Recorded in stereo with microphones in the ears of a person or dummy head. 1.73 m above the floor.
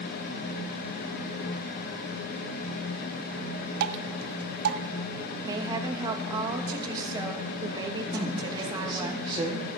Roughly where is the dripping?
Right.